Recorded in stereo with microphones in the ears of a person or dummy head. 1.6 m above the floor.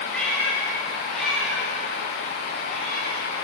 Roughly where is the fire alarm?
No fire alarm in this recording.